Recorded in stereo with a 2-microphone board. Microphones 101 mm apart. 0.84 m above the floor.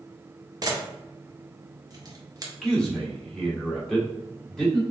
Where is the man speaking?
5° left (ahead or behind), 1.9 m.